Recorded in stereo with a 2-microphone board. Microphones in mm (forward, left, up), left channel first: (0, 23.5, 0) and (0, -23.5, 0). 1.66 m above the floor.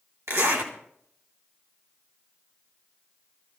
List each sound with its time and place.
0.3 s a zipper: 75° right (ahead or behind), 3 m